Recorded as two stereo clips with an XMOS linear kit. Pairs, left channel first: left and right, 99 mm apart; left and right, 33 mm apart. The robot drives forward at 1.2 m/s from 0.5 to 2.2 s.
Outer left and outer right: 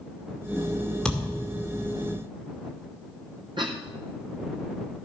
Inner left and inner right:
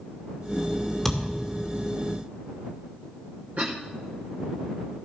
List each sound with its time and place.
1.1 s a thud: 10° left (ahead or behind), 2 m
3.6 s a cough: 55° right (ahead or behind), 0.8 m